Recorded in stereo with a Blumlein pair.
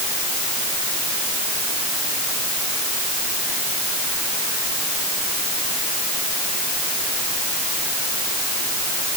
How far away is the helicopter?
No helicopter in this recording.